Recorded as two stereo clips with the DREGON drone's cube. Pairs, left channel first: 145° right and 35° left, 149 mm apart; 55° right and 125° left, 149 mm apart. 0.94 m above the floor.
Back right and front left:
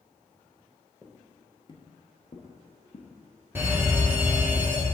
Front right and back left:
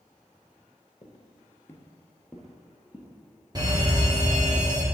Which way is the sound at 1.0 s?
75° right.